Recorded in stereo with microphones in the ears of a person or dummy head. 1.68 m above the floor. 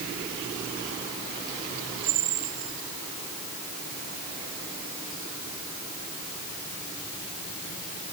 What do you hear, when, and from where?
Only background noise.